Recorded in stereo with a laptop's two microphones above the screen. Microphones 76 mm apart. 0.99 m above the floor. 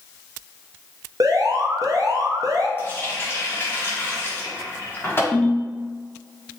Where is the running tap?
30° left (ahead or behind), 1.5 m.